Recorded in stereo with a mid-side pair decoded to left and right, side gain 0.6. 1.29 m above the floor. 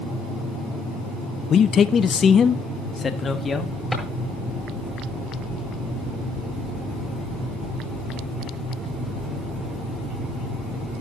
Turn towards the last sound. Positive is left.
turn(degrees=5)